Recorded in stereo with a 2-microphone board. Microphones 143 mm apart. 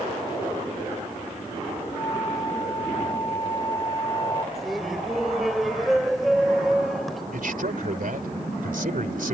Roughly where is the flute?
Left.